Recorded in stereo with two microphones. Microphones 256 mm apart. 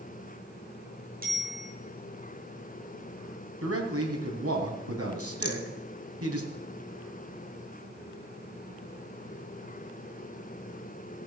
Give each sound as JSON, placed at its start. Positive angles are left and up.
{"t": 1.2, "sound": "a bicycle bell", "side_deg": -35, "distance_m": 7.0}
{"t": 3.6, "sound": "a man speaking", "side_deg": -65, "distance_m": 3.5}
{"t": 5.4, "sound": "a rattle", "side_deg": 65, "distance_m": 1.6}